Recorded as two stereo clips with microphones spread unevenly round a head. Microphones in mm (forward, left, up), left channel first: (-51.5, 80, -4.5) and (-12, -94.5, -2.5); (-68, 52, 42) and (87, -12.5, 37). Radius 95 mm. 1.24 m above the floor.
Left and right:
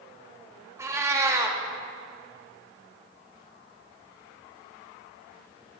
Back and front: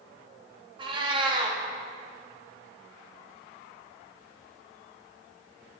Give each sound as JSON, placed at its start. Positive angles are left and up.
{"t": 0.8, "sound": "a cat meowing", "azimuth_deg": -30, "distance_m": 0.7}